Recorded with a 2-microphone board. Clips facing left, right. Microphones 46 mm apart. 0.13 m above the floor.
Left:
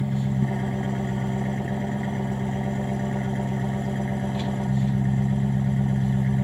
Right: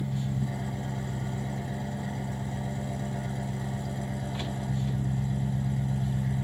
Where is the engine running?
45° left (ahead or behind), 2 m.